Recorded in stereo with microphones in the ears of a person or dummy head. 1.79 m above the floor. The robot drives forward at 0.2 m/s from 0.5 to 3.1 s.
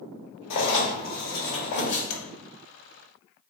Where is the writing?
65° left (ahead or behind), 0.9 m; by 2.0 s 50° left (ahead or behind), 1.0 m.